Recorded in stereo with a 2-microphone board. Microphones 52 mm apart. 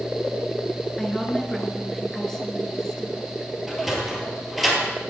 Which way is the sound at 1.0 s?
10° left (ahead or behind).